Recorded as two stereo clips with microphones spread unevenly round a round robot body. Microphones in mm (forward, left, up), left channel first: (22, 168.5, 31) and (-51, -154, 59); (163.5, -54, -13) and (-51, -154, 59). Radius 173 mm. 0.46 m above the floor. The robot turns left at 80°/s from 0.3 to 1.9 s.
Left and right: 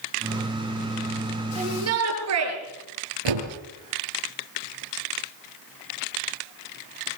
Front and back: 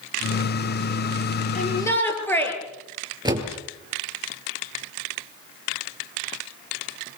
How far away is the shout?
About 9 m.